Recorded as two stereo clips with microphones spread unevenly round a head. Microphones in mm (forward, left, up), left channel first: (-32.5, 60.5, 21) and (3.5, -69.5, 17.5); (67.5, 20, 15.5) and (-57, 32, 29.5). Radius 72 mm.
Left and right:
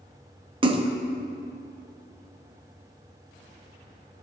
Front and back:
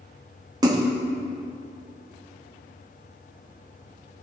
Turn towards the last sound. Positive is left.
turn(degrees=-125)